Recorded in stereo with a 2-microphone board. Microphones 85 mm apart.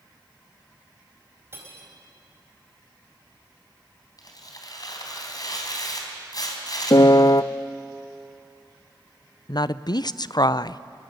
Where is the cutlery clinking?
30° right (ahead or behind), 4.5 m.